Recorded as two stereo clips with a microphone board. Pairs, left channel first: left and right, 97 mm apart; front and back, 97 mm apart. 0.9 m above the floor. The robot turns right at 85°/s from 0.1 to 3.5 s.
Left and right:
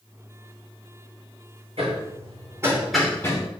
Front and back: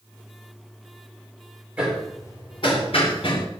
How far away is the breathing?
I don't hear breathing.